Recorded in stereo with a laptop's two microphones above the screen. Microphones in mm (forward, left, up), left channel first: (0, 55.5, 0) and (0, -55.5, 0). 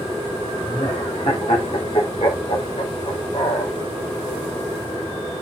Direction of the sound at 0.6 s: 65° left (ahead or behind).